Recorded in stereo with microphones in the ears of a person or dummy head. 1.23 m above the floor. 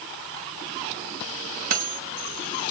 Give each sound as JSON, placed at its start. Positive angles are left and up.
{"t": 1.7, "sound": "cutlery clinking", "side_deg": -45, "distance_m": 0.9}